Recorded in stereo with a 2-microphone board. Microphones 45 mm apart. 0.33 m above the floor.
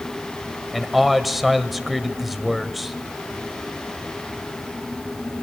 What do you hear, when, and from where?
0.7 s a man speaking: centre (ahead or behind), 1.2 m